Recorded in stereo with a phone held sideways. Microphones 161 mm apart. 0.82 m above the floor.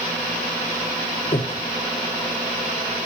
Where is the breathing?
45° left (ahead or behind), 1.4 m.